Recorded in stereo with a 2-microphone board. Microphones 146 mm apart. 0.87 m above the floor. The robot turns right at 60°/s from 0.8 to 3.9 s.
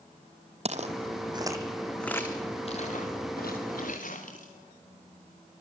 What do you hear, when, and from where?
0.7 s footsteps: 45° right (ahead or behind), 1.6 m; by 4.5 s 65° left (ahead or behind), 7.5 m